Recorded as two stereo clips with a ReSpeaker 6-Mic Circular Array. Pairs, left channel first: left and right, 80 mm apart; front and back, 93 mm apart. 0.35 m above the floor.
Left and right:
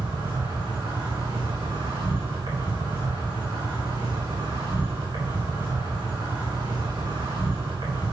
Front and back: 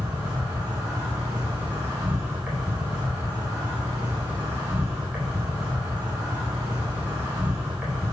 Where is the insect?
105° right, 4 m.